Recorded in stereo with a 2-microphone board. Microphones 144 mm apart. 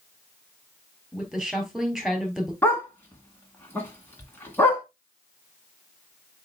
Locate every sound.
1.1 s a woman speaking: centre (ahead or behind), 3.5 m
2.6 s a dog barking: 15° left (ahead or behind), 2 m